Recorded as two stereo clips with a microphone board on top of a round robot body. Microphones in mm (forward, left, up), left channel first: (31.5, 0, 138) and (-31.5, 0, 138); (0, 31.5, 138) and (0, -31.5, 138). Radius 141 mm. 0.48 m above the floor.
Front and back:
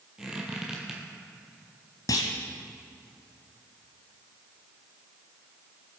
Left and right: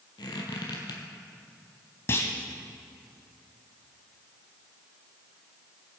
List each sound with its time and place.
0.2 s a squeak: 100° left, 1.2 m
2.1 s a clunk: 35° left, 0.7 m